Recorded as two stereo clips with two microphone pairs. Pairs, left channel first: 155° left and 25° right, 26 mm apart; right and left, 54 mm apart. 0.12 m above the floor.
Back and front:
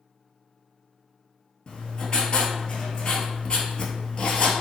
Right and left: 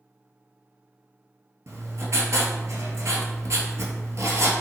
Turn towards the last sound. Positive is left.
turn(degrees=100)